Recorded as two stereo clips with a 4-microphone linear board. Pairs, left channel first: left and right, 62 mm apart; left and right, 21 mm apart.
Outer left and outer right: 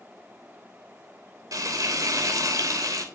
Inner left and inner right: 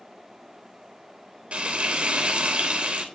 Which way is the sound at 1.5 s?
70° right (ahead or behind).